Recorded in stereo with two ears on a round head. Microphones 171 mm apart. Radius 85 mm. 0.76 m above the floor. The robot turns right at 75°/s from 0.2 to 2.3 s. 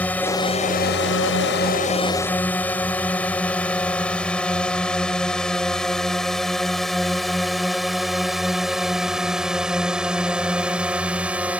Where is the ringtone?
No ringtone in this recording.